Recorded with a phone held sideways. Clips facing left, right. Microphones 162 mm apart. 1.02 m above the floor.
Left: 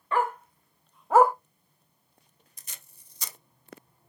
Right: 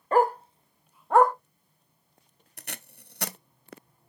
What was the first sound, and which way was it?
A dog barking, 45° right (ahead or behind).